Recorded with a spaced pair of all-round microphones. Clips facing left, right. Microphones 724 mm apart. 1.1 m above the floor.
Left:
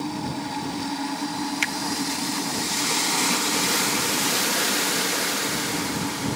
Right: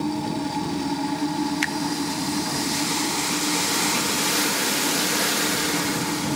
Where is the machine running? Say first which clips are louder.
Right 4 dB; 70° right (ahead or behind).